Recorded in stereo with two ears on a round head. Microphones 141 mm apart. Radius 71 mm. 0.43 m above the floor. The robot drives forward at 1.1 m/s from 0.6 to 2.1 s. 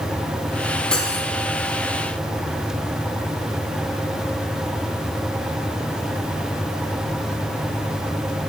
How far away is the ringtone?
I don't hear a ringtone.